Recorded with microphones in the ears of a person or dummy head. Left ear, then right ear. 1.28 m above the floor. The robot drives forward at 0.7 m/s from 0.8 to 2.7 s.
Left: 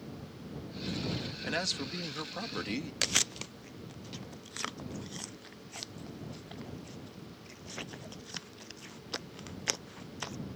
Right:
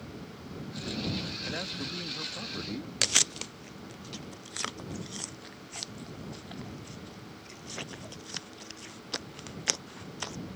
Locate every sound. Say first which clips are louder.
1.4 s a man speaking: left 2 dB; 80° left; by 2.9 s 70° left (ahead or behind)
3.0 s chewing: right 4 dB; centre (ahead or behind)